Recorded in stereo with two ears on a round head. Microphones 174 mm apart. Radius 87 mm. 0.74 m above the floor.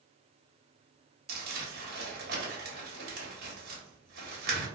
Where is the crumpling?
55° right (ahead or behind), 1.1 m.